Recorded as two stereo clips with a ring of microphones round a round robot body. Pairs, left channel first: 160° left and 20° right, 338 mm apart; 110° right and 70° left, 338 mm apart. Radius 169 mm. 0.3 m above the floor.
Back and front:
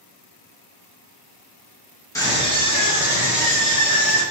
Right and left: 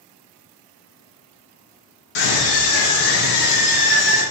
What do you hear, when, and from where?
2.1 s a scream: 120° right, 3.5 m; by 4.2 s 140° right, 6 m